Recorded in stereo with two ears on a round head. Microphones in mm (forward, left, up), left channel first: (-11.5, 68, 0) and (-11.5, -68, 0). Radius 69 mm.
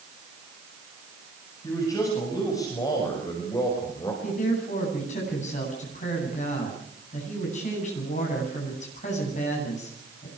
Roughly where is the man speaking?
Left.